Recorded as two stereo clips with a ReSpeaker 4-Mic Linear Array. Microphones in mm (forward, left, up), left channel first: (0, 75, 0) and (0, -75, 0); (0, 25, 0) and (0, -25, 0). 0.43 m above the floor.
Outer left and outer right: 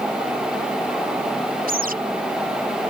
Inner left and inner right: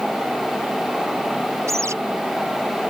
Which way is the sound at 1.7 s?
65° right (ahead or behind).